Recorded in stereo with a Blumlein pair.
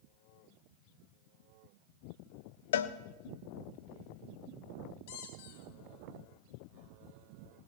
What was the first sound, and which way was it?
A cowbell, 60° left.